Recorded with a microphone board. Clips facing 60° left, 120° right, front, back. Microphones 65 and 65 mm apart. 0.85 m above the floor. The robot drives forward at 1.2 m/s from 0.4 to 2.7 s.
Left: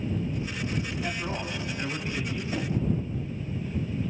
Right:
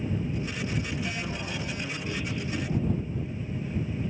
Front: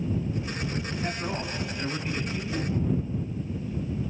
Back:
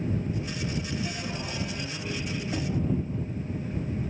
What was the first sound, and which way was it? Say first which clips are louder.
A man speaking: left 2 dB, front 3 dB; 40° left.